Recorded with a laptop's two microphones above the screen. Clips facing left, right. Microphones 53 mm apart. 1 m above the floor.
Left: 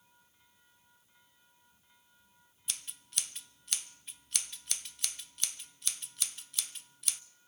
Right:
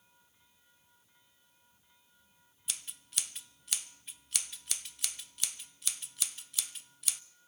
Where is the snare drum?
I don't hear a snare drum.